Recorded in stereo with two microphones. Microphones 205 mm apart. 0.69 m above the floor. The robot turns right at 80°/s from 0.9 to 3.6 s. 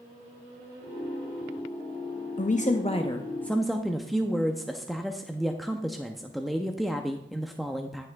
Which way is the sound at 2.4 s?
85° left.